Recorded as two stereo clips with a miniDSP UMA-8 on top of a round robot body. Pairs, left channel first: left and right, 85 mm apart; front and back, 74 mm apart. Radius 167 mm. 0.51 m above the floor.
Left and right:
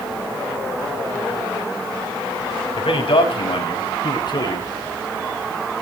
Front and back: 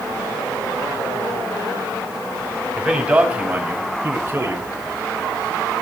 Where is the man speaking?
100° left, 4 m; by 4.7 s 130° left, 3.5 m.